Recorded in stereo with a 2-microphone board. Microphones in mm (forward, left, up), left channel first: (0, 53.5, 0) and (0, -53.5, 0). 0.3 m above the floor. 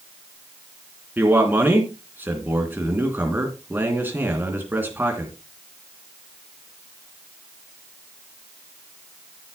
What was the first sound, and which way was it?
A man speaking, 20° right (ahead or behind).